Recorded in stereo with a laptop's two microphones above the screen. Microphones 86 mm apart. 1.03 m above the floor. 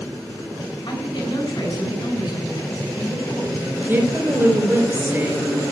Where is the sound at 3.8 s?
25° right (ahead or behind), 3.5 m.